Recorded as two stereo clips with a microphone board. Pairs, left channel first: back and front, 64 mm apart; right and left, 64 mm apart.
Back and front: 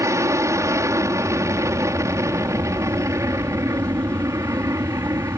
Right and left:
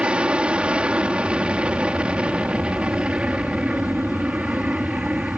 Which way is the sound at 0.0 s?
20° left.